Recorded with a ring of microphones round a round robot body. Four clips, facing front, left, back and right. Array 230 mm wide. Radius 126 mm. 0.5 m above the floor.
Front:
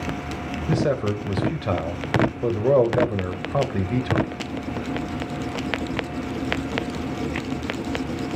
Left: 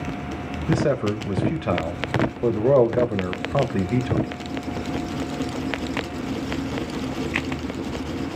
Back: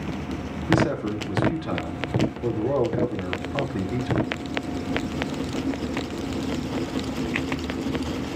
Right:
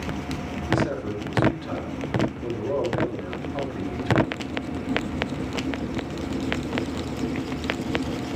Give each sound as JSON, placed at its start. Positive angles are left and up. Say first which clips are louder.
{"t": 0.7, "sound": "a man speaking", "louder": "left 4 dB, even", "azimuth_deg": 55, "distance_m": 2.5}